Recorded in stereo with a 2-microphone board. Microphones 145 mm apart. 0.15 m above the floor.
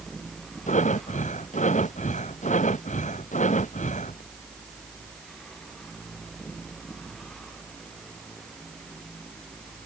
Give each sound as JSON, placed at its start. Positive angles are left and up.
{"t": 0.7, "sound": "breathing", "side_deg": 55}